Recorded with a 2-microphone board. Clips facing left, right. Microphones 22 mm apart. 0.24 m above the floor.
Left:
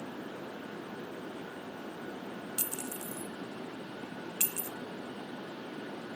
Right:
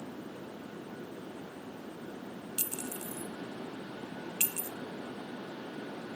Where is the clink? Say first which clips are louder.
Right 2 dB; 15° right (ahead or behind), 1.0 m.